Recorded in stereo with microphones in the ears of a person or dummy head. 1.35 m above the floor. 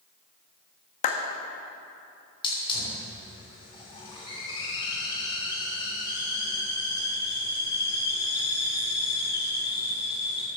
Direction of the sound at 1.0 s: 40° left (ahead or behind).